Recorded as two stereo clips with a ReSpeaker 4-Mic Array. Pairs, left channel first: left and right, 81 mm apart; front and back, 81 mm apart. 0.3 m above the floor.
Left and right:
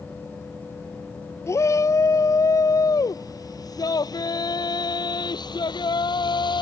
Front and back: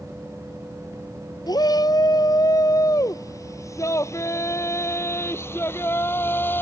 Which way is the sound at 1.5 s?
35° left.